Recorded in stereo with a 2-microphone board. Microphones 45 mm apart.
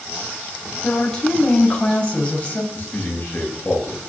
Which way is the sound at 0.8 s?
20° left (ahead or behind).